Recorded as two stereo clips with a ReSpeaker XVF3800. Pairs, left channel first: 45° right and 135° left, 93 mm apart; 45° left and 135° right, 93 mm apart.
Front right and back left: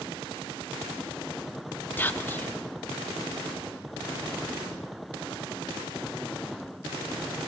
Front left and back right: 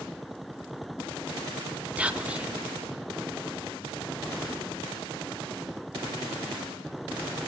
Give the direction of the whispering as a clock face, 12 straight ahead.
3 o'clock.